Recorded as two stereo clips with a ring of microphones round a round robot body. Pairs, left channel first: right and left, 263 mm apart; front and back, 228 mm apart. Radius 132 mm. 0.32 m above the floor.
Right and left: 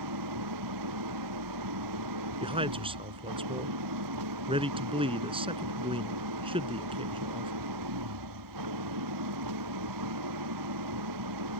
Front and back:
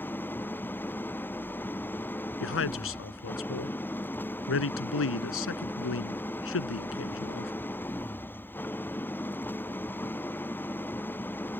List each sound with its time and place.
0.0 s an engine running: 80° left
2.4 s a man speaking: 20° left